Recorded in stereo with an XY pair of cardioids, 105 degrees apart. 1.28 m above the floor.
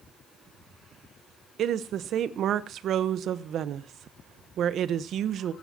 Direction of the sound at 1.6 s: 65° right.